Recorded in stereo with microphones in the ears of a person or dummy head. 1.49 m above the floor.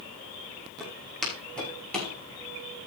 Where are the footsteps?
Centre (ahead or behind), 7 m; by 2.1 s 5° left (ahead or behind), 6.5 m.